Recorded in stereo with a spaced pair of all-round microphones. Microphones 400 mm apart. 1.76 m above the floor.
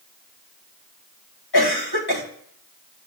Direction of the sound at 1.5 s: 65° left (ahead or behind).